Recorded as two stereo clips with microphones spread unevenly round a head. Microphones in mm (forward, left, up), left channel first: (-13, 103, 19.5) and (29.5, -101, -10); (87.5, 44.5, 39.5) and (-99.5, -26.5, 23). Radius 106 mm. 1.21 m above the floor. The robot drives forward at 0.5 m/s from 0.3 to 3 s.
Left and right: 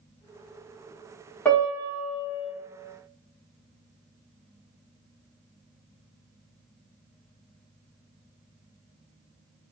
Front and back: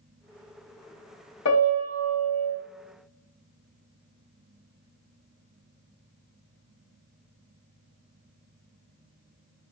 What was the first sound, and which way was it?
A piano, 25° left.